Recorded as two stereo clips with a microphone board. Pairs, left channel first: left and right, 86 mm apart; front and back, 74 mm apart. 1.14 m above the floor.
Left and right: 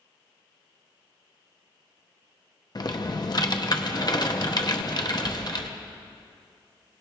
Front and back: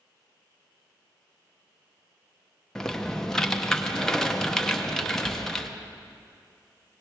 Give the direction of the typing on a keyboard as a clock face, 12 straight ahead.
9 o'clock.